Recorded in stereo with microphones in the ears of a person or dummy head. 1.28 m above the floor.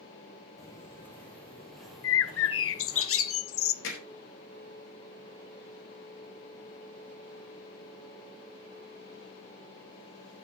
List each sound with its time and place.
0.6 s footsteps: 15° left (ahead or behind), 4.5 m; by 3.0 s 20° right (ahead or behind), 3.5 m
2.0 s a bird: 60° left (ahead or behind), 0.8 m
3.8 s hammering: 65° left (ahead or behind), 4.5 m